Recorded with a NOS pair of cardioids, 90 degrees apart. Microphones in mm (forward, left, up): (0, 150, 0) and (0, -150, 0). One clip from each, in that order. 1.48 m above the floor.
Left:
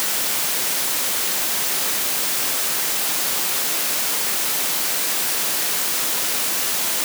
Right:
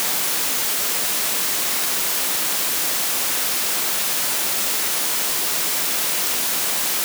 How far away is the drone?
No drone in this recording.